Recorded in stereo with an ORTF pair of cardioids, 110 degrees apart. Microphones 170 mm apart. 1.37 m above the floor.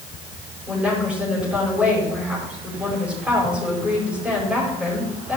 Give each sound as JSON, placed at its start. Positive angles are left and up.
{"t": 0.7, "sound": "a woman speaking", "azimuth_deg": -5, "distance_m": 5.0}